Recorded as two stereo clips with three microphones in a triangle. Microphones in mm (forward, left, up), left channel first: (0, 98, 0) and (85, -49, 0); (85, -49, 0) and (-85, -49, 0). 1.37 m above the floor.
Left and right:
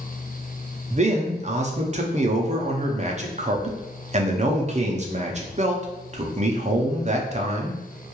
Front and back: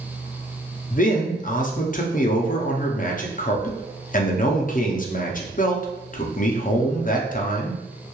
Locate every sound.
0.9 s a man speaking: 20° right, 0.5 m